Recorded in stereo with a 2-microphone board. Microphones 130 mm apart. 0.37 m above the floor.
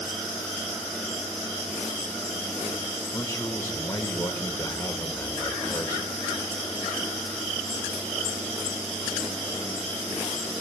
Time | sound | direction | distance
3.1 | a man speaking | 20° left (ahead or behind) | 1.2 m